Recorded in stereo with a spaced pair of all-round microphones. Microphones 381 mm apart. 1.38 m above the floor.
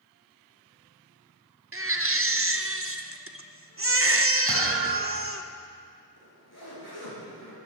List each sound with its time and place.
1.7 s a baby crying: 35° right (ahead or behind), 0.7 m
4.5 s a thud: 70° right (ahead or behind), 4.5 m
6.2 s a zipper: 80° left, 5.5 m